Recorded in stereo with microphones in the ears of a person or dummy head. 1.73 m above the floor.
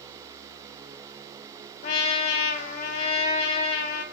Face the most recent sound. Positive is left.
turn(degrees=40)  # may be behind; listen again after turning